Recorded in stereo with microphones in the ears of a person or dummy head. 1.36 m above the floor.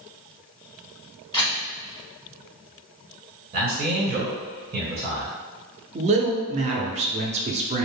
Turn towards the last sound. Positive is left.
turn(degrees=-30)  # may be behind; listen again after turning